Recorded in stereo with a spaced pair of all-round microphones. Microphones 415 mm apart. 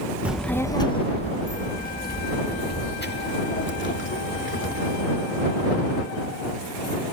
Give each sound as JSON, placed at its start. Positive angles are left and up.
{"t": 0.2, "sound": "a child speaking", "side_deg": -5}